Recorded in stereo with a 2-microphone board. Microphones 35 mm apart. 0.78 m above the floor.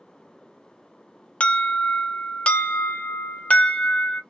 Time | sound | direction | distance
1.4 | an alarm | 45° left (ahead or behind) | 0.8 m